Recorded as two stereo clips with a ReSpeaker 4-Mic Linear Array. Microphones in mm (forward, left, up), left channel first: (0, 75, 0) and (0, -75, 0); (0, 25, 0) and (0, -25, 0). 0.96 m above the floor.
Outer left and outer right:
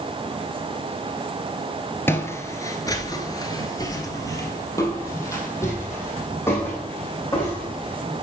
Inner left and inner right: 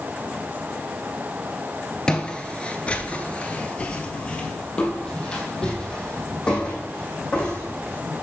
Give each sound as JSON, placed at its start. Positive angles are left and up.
{"t": 2.1, "sound": "footsteps", "side_deg": 15, "distance_m": 1.1}